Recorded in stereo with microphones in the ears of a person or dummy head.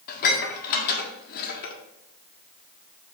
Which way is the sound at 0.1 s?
50° left (ahead or behind).